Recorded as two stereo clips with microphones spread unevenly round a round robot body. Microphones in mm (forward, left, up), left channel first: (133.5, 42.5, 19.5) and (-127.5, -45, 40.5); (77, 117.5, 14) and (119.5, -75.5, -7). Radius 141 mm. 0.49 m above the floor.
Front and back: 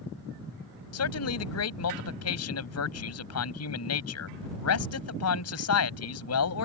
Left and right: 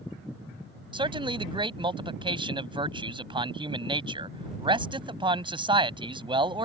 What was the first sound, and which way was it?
A man speaking, 15° right.